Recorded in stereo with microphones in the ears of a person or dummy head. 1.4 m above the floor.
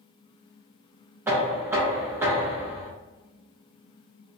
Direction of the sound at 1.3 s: 15° right (ahead or behind).